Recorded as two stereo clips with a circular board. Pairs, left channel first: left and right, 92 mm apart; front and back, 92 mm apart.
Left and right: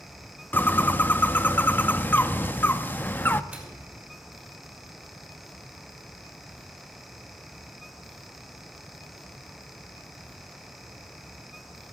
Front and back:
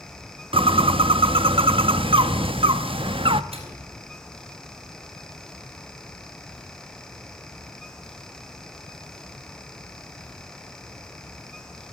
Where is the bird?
160° left, 0.6 m.